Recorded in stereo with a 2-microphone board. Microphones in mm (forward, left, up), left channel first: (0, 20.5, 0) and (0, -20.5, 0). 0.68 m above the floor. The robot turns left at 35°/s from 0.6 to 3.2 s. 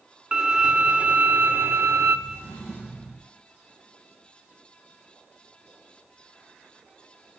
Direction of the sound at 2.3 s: 60° left (ahead or behind).